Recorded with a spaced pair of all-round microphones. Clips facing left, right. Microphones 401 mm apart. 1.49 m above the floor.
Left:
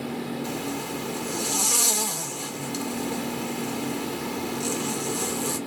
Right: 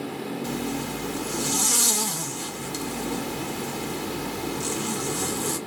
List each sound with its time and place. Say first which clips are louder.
0.4 s a zipper: right 2 dB; 30° right (ahead or behind), 2.5 m